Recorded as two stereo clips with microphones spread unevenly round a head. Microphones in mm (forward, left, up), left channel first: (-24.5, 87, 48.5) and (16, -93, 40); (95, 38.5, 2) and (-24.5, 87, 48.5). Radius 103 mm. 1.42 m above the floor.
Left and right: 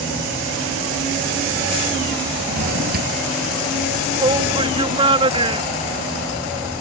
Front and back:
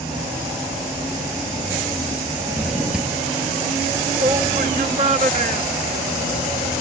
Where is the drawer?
120° right.